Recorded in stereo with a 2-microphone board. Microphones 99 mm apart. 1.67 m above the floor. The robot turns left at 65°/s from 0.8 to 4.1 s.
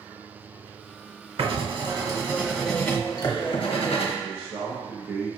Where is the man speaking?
20° right (ahead or behind), 1.1 m.